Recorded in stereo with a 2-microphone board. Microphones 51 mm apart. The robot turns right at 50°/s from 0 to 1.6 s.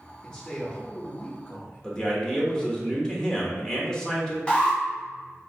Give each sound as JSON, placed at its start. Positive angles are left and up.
{"t": 0.2, "sound": "a man speaking", "azimuth_deg": 10, "distance_m": 1.1}
{"t": 1.8, "sound": "a man speaking", "side_deg": 15, "distance_m": 1.2}
{"t": 4.5, "sound": "an alarm", "side_deg": 15, "distance_m": 1.2}